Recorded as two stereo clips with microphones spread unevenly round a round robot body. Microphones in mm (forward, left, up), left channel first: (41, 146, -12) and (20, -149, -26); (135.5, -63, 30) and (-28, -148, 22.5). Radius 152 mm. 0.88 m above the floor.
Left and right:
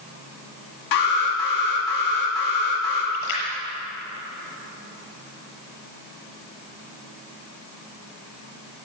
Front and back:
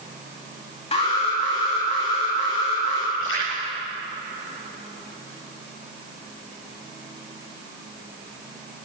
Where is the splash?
80° left, 7 m.